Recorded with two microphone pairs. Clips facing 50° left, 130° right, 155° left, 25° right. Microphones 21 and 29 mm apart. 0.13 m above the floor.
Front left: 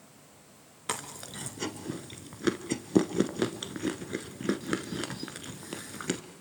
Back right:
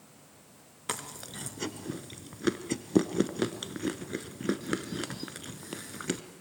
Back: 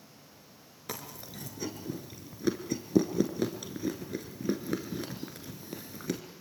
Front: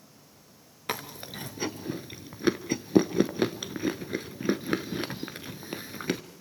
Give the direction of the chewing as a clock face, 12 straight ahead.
1 o'clock.